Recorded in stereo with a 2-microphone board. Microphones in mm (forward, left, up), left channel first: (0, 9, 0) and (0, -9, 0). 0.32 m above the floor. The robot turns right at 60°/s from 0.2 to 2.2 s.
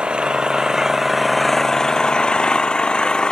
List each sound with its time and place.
0.0 s an engine running: 65° right; by 3.3 s 55° left